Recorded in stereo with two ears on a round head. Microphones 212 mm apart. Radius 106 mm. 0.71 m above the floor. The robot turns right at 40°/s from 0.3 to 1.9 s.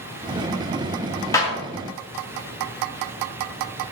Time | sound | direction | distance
1.3 | a clap | 15° left (ahead or behind) | 1.3 m